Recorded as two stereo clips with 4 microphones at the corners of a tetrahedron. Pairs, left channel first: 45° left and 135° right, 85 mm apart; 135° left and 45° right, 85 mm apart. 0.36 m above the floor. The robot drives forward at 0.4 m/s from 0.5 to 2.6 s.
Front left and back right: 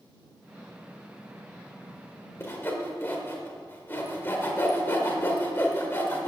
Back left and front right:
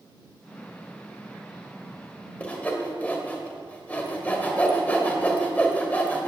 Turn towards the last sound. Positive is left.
turn(degrees=80)